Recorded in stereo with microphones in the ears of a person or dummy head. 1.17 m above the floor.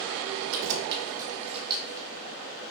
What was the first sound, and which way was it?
Keys jangling, 75° right (ahead or behind).